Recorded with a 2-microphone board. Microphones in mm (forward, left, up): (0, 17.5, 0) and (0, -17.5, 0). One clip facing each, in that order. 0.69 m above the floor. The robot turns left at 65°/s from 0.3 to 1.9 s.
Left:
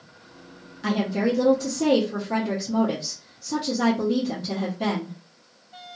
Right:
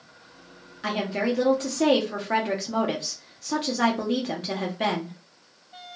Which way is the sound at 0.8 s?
10° right.